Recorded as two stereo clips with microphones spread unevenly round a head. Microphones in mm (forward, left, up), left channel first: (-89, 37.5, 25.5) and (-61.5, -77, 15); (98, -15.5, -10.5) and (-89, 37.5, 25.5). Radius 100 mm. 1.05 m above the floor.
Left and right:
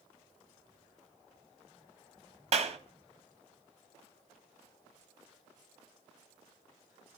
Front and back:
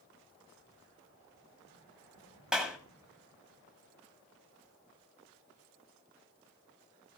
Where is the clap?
110° right, 1.6 m.